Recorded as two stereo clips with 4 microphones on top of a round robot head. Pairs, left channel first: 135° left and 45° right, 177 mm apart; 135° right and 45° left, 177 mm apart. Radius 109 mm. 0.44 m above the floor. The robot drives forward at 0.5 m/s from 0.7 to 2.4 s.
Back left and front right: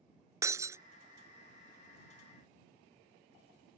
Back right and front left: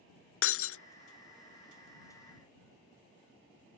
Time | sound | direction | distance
0.4 | breaking glass | 120° right | ?